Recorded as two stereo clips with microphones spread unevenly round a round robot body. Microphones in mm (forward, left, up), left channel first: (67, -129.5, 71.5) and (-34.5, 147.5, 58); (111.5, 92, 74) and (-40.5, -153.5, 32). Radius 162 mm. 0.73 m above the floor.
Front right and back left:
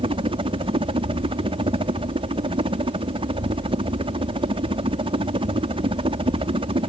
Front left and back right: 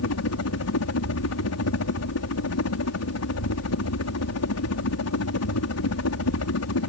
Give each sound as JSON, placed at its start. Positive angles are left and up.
{"t": 0.0, "sound": "a helicopter", "azimuth_deg": 45}